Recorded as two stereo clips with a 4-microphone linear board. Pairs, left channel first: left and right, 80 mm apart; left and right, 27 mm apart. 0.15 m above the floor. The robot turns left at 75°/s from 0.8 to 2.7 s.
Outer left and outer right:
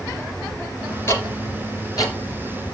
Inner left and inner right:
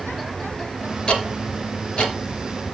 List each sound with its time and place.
1.1 s ticking: 35° left (ahead or behind), 2.5 m; by 2.1 s 50° left (ahead or behind), 2.5 m